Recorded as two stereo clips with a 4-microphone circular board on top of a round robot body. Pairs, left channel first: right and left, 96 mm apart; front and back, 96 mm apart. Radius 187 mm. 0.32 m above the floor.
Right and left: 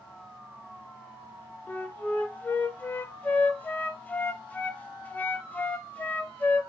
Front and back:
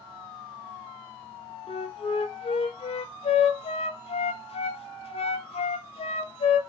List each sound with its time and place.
1.7 s a flute: 15° right, 0.5 m